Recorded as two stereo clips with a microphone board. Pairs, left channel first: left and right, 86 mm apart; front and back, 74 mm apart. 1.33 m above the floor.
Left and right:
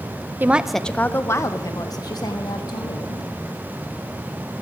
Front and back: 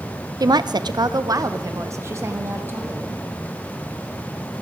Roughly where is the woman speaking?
Behind right.